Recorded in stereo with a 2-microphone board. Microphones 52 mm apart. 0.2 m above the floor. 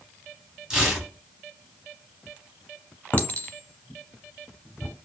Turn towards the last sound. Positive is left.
turn(degrees=30)  # may be behind; listen again after turning